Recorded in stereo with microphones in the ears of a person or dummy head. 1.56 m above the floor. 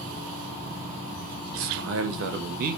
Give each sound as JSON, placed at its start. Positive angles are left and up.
{"t": 1.6, "sound": "a man speaking", "side_deg": -65, "distance_m": 1.5}